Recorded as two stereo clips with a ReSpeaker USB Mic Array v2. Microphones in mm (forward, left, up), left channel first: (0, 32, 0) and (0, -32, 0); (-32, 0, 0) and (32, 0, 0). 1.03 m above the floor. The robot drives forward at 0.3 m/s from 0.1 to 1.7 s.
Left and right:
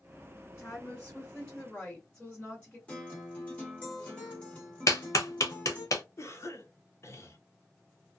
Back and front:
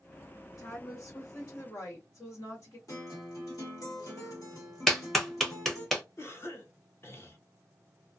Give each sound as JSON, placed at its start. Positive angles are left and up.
{"t": 0.6, "sound": "a woman speaking", "azimuth_deg": 160, "distance_m": 1.2}
{"t": 2.9, "sound": "a guitar", "azimuth_deg": 160, "distance_m": 1.6}
{"t": 4.9, "sound": "a clap", "azimuth_deg": 95, "distance_m": 0.7}
{"t": 6.2, "sound": "a cough", "azimuth_deg": 135, "distance_m": 0.8}